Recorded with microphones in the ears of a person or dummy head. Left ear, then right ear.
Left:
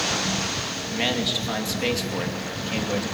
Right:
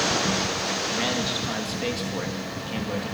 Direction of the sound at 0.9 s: 10° left (ahead or behind).